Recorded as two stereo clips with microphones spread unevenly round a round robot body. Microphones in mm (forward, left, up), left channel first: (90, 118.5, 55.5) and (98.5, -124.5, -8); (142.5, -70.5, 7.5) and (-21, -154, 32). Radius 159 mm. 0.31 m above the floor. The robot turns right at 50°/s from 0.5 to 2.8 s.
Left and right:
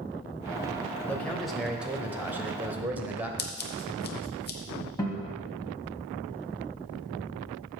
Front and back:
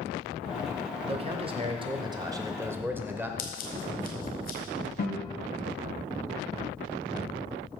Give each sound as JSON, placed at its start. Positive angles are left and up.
{"t": 1.1, "sound": "a man speaking", "azimuth_deg": -160, "distance_m": 0.9}
{"t": 3.4, "sound": "scissors", "azimuth_deg": 40, "distance_m": 1.3}
{"t": 5.0, "sound": "a guitar", "azimuth_deg": 10, "distance_m": 3.0}